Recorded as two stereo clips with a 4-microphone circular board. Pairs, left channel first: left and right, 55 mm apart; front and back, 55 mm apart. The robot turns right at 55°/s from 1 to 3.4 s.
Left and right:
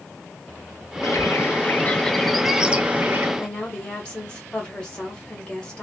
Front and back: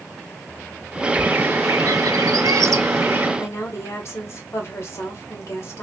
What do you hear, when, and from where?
1.0 s a bird: 105° left, 0.5 m; by 3.3 s 130° right, 0.5 m
3.4 s a woman speaking: 20° left, 1.6 m